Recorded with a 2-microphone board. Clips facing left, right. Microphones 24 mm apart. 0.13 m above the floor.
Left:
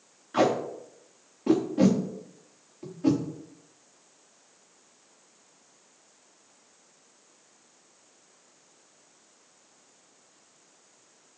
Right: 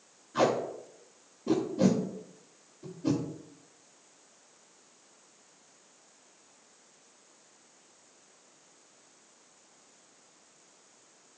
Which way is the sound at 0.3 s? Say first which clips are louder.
Left 3 dB; 85° left.